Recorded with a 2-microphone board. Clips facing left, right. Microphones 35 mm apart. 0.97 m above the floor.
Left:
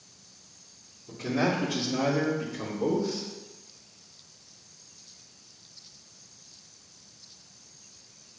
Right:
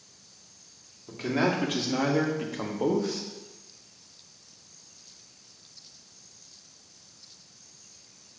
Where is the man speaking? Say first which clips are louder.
Right 1 dB; 50° right (ahead or behind), 1.9 m; by 3.2 s 70° right (ahead or behind), 1.2 m.